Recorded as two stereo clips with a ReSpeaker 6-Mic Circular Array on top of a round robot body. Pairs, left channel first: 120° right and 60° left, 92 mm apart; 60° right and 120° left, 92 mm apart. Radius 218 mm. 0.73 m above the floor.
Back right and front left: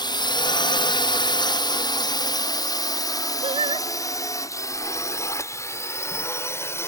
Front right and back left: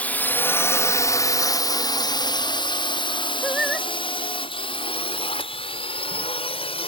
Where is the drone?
130° right; by 6.9 s 60° right.